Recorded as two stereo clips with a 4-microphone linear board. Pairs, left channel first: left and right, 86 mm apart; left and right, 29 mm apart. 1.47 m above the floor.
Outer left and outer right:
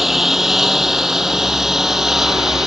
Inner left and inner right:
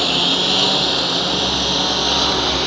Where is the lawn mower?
5° right (ahead or behind).